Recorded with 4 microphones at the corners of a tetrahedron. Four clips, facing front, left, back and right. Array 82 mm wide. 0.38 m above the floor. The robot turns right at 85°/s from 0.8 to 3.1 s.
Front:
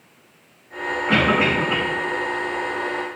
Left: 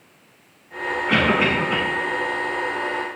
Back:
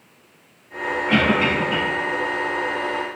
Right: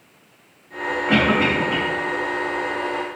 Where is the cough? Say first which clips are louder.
Right 1 dB, front 1 dB; 50° right, 3.5 m; by 1.8 s 5° left, 3.5 m.